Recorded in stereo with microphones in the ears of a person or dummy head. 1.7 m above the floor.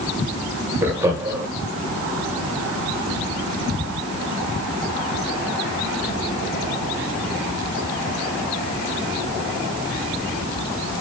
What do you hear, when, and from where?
0.8 s laughter: 15° right (ahead or behind), 1.4 m